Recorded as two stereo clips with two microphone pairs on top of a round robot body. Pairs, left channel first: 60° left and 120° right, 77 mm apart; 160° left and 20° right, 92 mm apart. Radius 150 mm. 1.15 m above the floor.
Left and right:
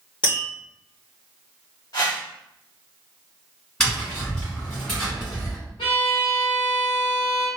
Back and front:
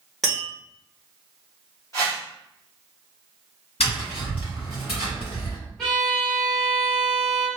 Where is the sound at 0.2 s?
70° left, 0.8 m.